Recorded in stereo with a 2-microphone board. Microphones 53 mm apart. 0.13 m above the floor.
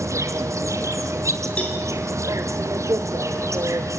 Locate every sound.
0.0 s an insect: 75° right (ahead or behind), 1.6 m
1.6 s a cowbell: 30° left (ahead or behind), 6.5 m